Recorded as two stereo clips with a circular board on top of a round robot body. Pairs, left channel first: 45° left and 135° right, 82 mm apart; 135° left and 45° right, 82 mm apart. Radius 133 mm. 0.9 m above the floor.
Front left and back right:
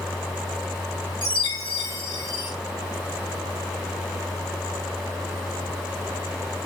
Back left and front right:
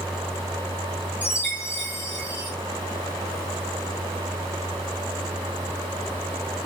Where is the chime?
70° left, 4 m.